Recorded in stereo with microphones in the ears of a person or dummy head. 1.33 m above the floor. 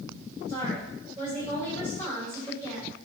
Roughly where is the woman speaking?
Right.